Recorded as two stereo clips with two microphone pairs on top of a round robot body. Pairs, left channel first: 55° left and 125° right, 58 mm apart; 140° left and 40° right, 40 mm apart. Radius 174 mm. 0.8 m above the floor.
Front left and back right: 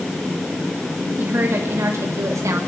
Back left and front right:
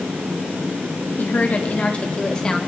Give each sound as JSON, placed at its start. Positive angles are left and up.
{"t": 1.2, "sound": "a woman speaking", "azimuth_deg": 180, "distance_m": 1.3}